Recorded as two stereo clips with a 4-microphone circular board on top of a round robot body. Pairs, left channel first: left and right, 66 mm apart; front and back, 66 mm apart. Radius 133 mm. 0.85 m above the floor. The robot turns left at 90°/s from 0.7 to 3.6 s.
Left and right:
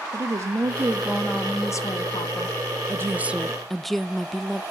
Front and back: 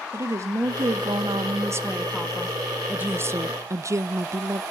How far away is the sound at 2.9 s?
About 0.6 m.